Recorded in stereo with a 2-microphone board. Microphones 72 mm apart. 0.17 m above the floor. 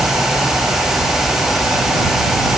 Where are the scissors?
No scissors in this recording.